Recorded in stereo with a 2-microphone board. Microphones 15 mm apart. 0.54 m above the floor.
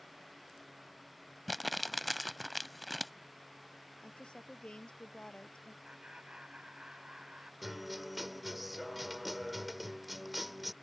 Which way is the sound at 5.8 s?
70° right (ahead or behind).